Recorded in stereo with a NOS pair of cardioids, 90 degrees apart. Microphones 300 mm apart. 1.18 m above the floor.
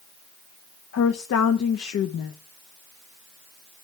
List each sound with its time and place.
0.9 s a woman speaking: 60° left, 1.5 m